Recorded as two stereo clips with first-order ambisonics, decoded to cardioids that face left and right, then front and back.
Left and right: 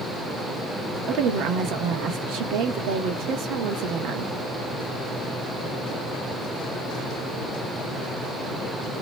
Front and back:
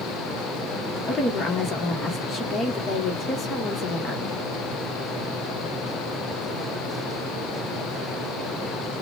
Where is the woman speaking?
65° right, 1.2 m.